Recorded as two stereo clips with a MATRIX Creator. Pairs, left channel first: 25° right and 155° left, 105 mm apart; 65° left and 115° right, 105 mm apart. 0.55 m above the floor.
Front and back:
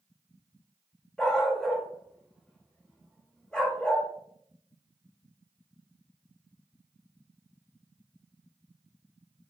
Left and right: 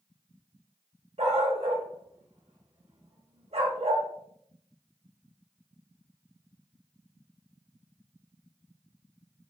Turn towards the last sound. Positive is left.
turn(degrees=-105)